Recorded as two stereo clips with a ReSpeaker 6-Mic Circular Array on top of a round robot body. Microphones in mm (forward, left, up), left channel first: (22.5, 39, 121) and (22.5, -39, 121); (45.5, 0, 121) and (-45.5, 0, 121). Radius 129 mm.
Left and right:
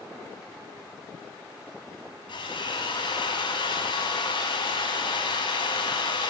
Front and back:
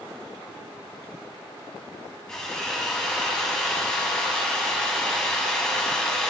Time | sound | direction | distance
2.3 | a drill | 80° left | 5.5 m